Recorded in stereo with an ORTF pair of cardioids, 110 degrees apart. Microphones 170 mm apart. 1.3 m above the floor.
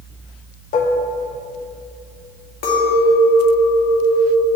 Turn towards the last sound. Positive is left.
turn(degrees=65)